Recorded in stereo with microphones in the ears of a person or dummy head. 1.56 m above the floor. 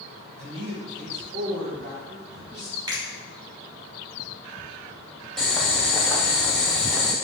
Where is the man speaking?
70° right (ahead or behind), 1.7 m; by 2.8 s 25° right (ahead or behind), 1.5 m.